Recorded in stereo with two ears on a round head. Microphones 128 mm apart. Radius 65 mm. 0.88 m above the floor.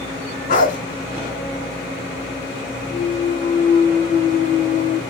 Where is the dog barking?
65° left (ahead or behind), 2.5 m.